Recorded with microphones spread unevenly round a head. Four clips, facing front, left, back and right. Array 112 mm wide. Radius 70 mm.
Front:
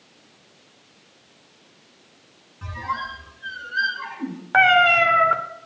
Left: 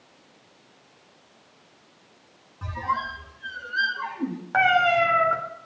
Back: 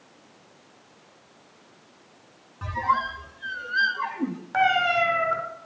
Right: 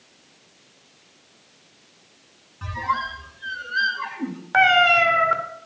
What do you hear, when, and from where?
2.6 s a squeak: 160° left, 0.9 m
4.5 s a cat meowing: 5° left, 1.0 m